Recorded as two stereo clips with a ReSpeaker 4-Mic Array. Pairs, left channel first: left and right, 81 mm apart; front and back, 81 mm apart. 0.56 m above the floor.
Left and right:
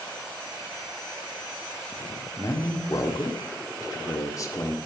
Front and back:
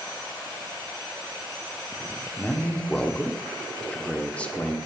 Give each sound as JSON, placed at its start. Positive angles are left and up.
{"t": 2.4, "sound": "a man speaking", "azimuth_deg": 70, "distance_m": 1.6}